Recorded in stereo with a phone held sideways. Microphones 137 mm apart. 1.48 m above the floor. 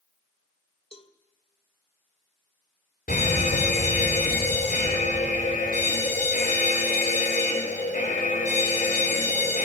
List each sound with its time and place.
0.9 s a cowbell: 40° left (ahead or behind), 2 m
3.1 s a fire alarm: 80° left, 9 m